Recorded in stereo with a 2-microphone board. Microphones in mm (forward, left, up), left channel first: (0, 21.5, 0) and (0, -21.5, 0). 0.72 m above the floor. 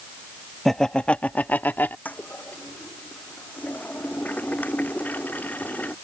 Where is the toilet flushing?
40° left (ahead or behind).